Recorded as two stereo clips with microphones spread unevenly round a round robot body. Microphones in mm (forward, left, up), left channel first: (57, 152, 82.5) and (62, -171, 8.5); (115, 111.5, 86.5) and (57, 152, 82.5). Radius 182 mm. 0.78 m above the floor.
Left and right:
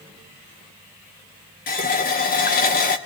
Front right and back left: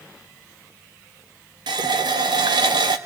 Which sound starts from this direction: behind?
A running tap, at 1.7 s.